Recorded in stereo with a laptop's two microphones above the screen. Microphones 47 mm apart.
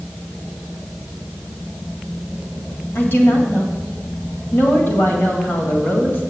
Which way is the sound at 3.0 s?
50° left (ahead or behind).